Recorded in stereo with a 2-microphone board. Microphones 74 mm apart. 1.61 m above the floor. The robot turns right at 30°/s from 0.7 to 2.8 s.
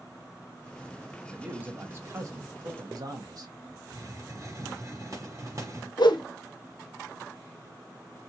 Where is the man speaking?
165° right, 1.0 m; by 3.5 s 120° right, 1.0 m.